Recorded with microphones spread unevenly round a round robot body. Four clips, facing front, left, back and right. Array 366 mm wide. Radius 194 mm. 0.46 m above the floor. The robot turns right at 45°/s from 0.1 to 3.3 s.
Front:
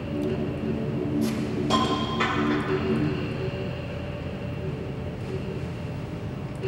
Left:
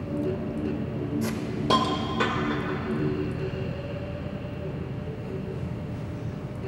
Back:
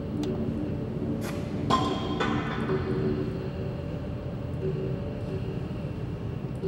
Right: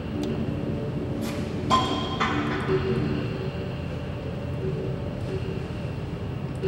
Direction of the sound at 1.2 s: 100° left.